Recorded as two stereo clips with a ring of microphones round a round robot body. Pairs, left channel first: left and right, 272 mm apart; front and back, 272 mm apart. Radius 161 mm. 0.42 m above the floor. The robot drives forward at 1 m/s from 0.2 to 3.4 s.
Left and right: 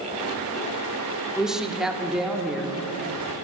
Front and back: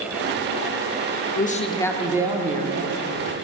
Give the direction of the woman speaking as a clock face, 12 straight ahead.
12 o'clock.